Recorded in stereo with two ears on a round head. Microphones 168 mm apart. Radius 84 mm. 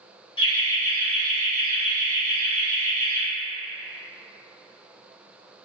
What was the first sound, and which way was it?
Laughter, 25° left (ahead or behind).